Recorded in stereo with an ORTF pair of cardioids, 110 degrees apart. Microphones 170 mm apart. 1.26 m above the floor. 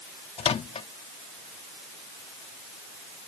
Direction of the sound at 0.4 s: 40° left.